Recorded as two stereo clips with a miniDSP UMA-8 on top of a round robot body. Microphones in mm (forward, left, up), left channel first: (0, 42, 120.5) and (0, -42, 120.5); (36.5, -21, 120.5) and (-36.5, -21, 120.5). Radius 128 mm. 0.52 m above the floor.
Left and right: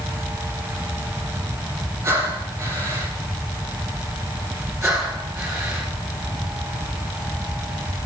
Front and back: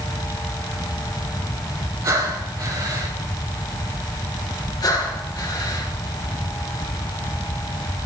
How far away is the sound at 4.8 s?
About 5 m.